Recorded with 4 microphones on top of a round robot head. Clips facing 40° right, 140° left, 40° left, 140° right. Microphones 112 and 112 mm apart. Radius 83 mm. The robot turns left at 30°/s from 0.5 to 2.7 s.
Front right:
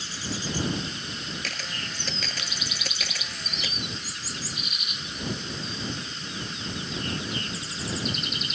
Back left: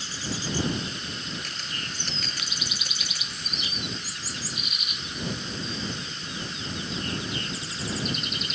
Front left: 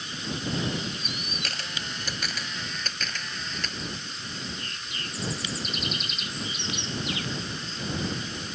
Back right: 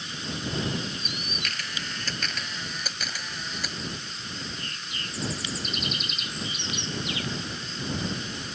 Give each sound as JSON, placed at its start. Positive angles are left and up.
{"t": 1.4, "sound": "a camera shutter", "azimuth_deg": -20}